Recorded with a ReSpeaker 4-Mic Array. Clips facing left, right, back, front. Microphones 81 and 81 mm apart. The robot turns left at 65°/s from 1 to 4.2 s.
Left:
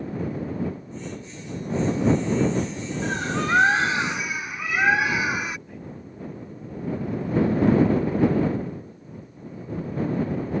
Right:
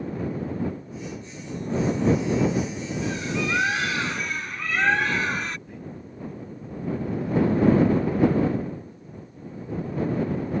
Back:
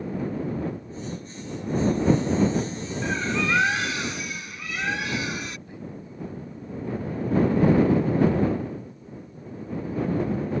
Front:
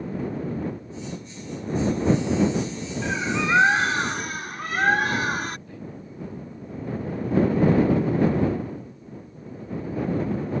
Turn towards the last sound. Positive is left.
turn(degrees=180)